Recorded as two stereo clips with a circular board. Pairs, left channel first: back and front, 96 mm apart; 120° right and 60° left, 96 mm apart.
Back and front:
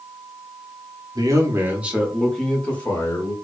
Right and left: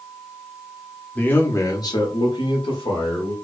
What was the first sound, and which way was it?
A man speaking, 45° right.